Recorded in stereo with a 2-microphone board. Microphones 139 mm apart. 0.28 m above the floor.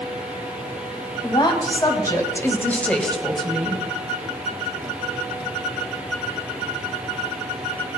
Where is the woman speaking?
35° left (ahead or behind), 2 m; by 3.8 s 10° right (ahead or behind), 1.6 m.